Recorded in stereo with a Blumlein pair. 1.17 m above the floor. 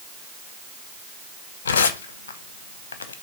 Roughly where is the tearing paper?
Ahead left.